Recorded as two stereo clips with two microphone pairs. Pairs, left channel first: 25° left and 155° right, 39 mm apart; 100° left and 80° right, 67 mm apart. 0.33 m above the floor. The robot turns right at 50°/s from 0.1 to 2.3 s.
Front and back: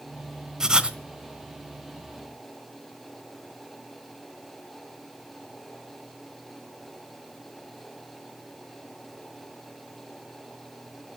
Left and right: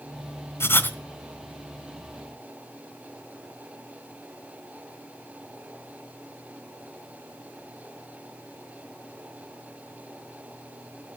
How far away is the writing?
About 1.2 m.